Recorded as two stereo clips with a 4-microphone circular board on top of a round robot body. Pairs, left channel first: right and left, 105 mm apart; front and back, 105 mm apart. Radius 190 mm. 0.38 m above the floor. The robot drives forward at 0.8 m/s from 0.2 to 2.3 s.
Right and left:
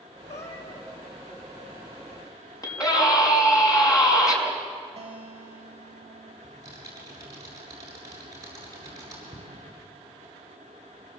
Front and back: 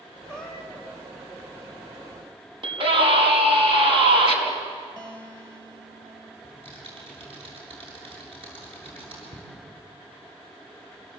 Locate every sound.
0.3 s a cat meowing: 80° right, 5.5 m; by 0.9 s 85° right, 5.5 m
2.6 s a scream: 145° right, 5.5 m
5.0 s a guitar: 125° left, 4 m
6.4 s typing on a keyboard: 145° left, 8.5 m